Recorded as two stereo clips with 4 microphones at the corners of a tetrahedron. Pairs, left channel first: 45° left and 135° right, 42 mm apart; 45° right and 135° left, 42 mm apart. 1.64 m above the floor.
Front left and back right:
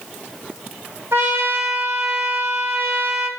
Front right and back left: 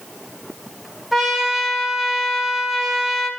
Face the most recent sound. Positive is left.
turn(degrees=-140)